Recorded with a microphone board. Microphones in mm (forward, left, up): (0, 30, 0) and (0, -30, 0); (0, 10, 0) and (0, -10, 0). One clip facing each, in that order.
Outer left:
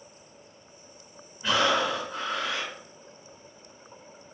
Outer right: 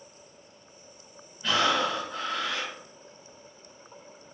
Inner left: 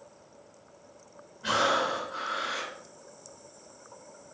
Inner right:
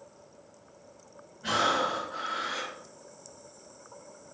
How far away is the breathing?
About 3 m.